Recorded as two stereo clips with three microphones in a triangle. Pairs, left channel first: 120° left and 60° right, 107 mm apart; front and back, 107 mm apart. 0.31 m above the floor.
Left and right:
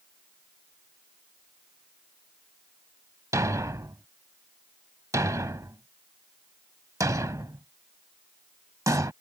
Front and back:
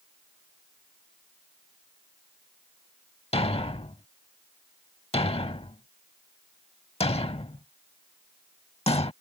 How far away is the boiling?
I don't hear boiling.